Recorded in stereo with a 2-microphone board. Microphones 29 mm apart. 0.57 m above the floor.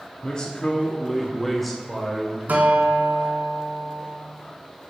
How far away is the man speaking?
About 0.9 m.